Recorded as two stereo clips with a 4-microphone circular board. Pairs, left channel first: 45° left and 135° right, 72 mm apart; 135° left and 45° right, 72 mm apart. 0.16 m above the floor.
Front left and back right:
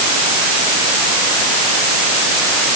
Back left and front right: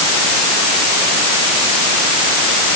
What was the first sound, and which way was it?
Only background noise.